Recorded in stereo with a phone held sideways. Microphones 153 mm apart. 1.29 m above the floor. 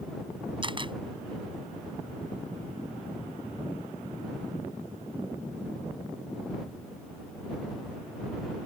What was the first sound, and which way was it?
A camera shutter, 35° right (ahead or behind).